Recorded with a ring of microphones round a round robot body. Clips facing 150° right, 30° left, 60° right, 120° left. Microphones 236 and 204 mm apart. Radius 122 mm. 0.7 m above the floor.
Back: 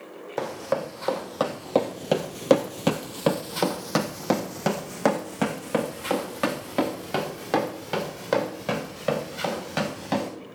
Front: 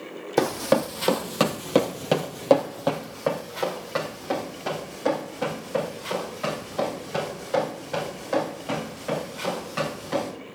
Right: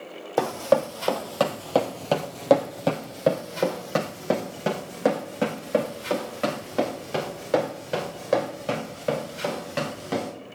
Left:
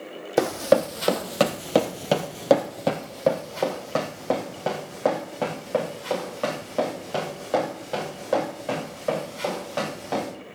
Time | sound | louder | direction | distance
0.4 | running footsteps | front 6 dB, left 2 dB | 55° left | 1.3 m